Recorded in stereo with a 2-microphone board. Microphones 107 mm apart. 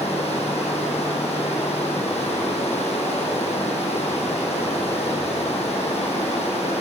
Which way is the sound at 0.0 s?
80° left.